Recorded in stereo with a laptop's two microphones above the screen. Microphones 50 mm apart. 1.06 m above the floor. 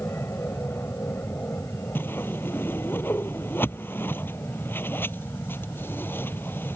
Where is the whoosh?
45° left (ahead or behind).